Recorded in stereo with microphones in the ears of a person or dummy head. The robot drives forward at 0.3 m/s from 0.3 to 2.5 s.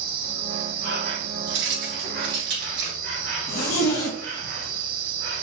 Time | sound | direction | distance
0.0 | an insect | 70° right (ahead or behind) | 1.5 m
1.5 | keys jangling | 50° right (ahead or behind) | 1.8 m
3.5 | a zipper | 50° left (ahead or behind) | 1.1 m